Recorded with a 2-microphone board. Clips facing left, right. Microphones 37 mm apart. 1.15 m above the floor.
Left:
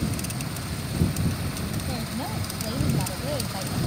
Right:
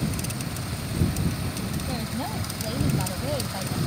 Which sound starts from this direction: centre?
A woman speaking, at 1.9 s.